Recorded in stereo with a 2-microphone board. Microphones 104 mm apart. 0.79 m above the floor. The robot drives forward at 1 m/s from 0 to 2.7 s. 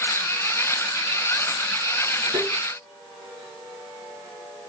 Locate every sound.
2.3 s tapping: 50° right (ahead or behind), 4 m; by 2.5 s 45° right (ahead or behind), 4 m